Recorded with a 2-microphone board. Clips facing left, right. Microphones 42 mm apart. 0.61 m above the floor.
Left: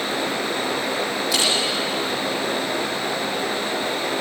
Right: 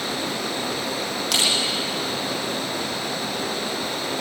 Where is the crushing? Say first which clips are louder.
Even; 80° right, 9 m.